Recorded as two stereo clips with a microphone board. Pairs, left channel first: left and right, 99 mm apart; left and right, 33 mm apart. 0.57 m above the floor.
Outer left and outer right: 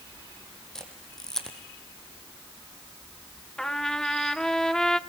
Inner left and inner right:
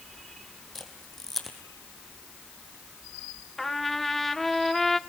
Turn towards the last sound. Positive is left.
turn(degrees=5)  # may be behind; listen again after turning